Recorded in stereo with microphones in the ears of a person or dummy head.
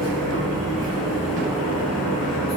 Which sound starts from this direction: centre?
A machine running, at 0.0 s.